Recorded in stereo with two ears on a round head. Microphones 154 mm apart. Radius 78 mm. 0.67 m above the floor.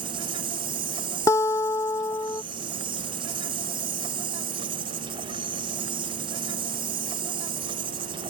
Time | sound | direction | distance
0.0 | an insect | 30° right (ahead or behind) | ?
1.3 | a guitar | 20° left (ahead or behind) | ?